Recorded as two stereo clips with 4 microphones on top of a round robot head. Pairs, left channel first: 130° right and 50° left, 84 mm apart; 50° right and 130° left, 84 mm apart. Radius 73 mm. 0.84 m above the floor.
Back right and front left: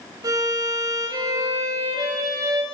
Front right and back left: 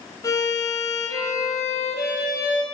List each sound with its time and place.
0.2 s a violin: straight ahead, 4 m